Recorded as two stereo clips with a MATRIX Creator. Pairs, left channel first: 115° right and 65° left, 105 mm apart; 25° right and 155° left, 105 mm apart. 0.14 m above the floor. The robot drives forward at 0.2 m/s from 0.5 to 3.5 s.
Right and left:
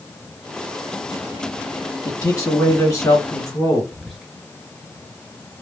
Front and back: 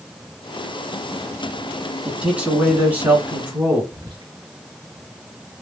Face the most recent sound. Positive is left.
turn(degrees=155)